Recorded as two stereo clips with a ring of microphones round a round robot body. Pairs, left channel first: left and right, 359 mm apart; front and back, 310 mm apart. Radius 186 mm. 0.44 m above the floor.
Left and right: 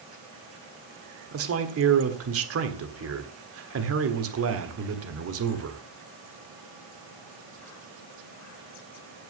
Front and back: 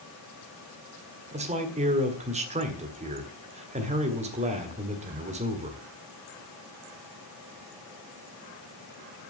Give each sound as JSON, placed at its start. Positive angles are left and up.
{"t": 1.3, "sound": "a man speaking", "azimuth_deg": -120, "distance_m": 1.7}